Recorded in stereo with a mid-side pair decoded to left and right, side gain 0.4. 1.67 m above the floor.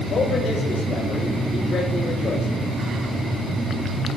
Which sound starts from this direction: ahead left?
A man speaking, at 0.1 s.